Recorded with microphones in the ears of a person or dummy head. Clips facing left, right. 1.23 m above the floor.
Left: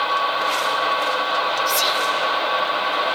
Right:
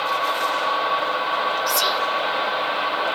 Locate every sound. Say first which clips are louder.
1.7 s whispering: even; 10° right (ahead or behind), 1.1 m